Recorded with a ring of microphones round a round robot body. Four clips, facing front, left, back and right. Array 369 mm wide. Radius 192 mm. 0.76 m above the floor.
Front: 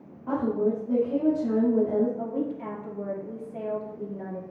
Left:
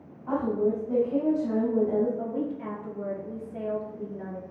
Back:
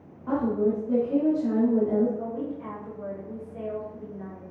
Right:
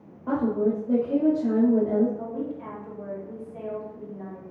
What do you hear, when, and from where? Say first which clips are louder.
0.3 s a woman speaking: right 2 dB, back 1 dB; 95° right, 4.5 m
2.2 s a woman speaking: left 1 dB, front 2 dB; 40° left, 1.7 m